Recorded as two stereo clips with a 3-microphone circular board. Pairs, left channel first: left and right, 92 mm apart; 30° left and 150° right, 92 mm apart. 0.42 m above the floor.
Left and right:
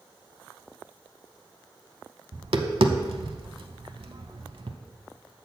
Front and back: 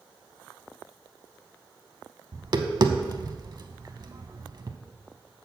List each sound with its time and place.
2.3 s tapping: 110° right, 0.6 m